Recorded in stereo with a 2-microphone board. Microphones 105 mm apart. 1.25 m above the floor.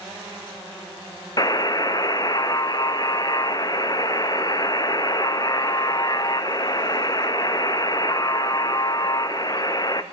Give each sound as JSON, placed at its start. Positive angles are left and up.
{"t": 1.4, "sound": "a buzzer", "side_deg": 40, "distance_m": 0.6}